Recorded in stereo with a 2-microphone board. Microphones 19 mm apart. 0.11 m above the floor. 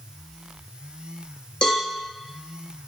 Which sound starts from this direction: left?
A cowbell, at 1.6 s.